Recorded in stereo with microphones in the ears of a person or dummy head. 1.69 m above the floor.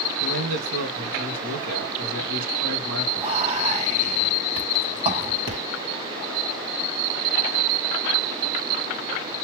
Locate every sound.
0.2 s a man speaking: 75° right (ahead or behind), 2.5 m
3.2 s whispering: 35° right (ahead or behind), 1.5 m